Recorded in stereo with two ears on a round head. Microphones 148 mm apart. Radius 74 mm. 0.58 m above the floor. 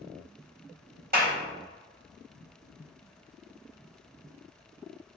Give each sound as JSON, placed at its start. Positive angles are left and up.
{"t": 1.1, "sound": "a clap", "side_deg": -60, "distance_m": 1.2}